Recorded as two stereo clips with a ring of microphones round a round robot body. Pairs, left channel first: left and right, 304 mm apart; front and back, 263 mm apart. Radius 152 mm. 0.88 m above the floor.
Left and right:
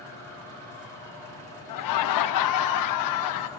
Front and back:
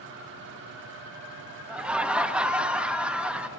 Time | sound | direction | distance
1.7 | laughter | 95° left | 1.0 m